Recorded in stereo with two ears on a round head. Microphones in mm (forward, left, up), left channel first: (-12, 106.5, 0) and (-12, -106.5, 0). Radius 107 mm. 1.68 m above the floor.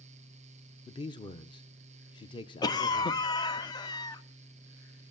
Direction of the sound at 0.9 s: 20° left (ahead or behind).